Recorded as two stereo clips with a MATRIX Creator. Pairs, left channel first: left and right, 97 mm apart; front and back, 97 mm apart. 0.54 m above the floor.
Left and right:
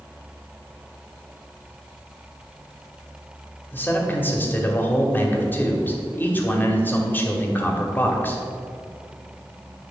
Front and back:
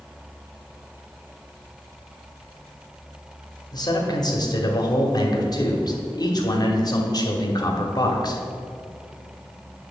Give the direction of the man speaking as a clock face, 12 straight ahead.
11 o'clock.